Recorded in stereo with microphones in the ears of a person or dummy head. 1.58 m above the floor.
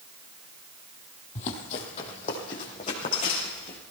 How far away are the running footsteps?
About 3 m.